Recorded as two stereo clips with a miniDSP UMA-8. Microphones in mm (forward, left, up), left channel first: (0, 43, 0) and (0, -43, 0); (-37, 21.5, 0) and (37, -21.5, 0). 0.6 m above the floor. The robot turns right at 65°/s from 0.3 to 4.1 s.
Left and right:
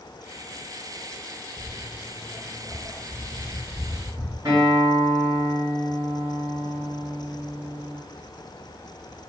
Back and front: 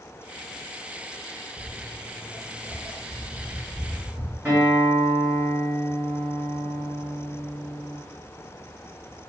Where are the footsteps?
5° left, 0.7 m; by 4.3 s straight ahead, 1.2 m.